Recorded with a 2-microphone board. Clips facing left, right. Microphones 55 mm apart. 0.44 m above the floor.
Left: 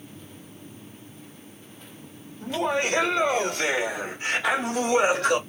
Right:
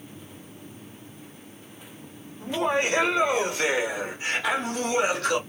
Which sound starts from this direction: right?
Laughter, at 2.4 s.